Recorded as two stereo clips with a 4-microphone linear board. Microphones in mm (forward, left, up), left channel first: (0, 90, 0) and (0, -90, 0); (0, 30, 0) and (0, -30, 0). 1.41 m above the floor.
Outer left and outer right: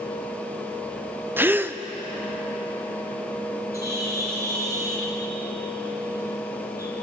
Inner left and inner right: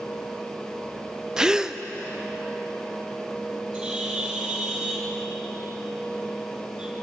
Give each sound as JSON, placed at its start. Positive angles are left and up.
{"t": 1.4, "sound": "a gasp", "side_deg": -10, "distance_m": 0.5}
{"t": 3.7, "sound": "a bird", "side_deg": -15, "distance_m": 4.0}